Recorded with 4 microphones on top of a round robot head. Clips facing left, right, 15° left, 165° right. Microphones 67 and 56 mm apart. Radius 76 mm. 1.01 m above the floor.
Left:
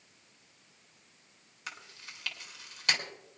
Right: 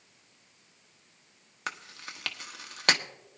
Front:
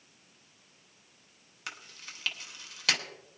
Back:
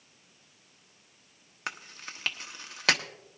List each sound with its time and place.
1.7 s chewing: 115° right, 1.0 m